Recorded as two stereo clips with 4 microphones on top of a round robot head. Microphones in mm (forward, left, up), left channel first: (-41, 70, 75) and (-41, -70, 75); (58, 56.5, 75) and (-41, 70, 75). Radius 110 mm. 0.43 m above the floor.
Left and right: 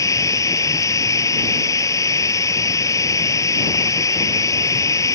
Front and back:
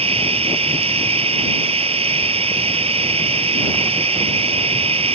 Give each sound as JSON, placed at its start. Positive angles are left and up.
{"t": 0.0, "sound": "running water", "azimuth_deg": 155}